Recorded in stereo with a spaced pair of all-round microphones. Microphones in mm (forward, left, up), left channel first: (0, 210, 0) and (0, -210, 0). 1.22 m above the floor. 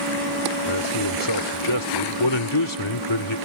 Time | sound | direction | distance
0.7 | a man speaking | 85° left | ?